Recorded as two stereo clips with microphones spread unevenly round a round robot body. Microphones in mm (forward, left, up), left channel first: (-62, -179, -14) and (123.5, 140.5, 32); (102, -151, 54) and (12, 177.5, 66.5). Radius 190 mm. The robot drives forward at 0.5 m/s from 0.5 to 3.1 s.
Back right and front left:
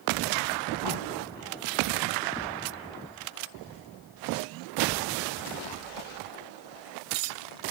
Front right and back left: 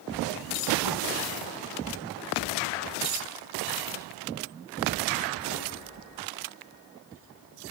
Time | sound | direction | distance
0.8 | knocking | 85° left | 9 m